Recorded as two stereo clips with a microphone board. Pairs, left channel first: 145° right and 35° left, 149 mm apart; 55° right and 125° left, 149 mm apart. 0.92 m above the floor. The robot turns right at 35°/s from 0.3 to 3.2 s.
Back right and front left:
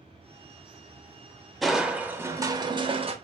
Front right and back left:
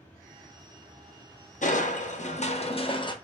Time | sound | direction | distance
1.6 | crushing | 55° right | 0.5 m